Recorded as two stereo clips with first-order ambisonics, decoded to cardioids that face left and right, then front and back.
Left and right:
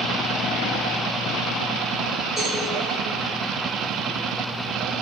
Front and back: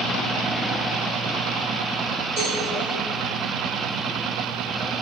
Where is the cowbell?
175° right, 1.6 m.